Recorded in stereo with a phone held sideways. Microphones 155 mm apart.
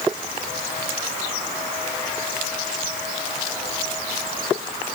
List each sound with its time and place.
Only background noise.